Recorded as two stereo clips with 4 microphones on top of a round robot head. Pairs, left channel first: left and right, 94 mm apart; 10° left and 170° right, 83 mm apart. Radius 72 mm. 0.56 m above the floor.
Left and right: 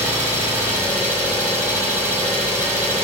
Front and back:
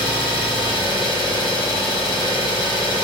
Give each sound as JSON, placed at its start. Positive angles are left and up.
{"t": 0.0, "sound": "an engine running", "azimuth_deg": -35, "distance_m": 2.0}